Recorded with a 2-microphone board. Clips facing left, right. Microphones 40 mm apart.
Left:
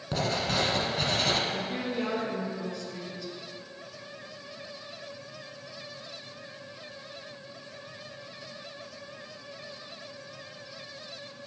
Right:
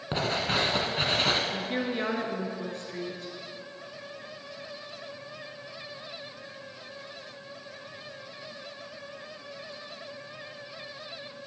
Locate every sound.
0.1 s writing: 30° right (ahead or behind), 1.2 m
1.5 s a woman speaking: 45° right (ahead or behind), 1.7 m